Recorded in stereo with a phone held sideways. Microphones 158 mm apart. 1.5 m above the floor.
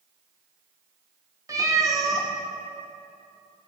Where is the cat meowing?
20° right (ahead or behind), 0.9 m.